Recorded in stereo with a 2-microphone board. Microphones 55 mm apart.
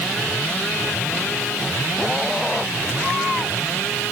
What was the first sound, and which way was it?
Only background noise.